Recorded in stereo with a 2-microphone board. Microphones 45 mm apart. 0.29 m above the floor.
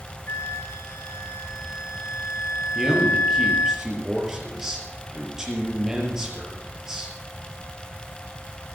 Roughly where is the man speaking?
Centre.